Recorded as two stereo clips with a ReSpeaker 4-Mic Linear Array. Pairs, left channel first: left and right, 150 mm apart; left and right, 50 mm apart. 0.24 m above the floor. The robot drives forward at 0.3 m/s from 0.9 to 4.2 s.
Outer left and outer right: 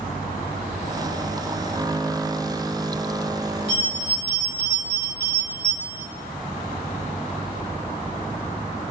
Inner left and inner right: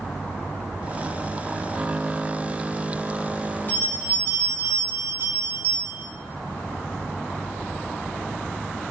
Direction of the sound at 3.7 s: 35° left (ahead or behind).